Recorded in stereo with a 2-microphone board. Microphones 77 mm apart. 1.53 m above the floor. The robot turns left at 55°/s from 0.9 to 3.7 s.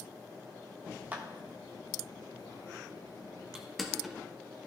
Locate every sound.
1.1 s a clap: 20° right (ahead or behind), 1.0 m; by 1.2 s 25° right (ahead or behind), 1.0 m
3.5 s crushing: 10° right (ahead or behind), 1.1 m; by 4.2 s centre (ahead or behind), 1.1 m